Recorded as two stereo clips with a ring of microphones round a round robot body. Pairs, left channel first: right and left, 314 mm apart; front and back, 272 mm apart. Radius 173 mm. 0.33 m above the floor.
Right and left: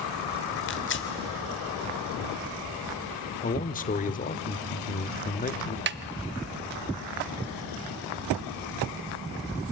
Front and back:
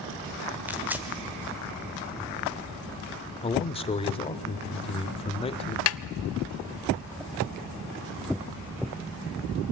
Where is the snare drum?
35° left, 0.6 m.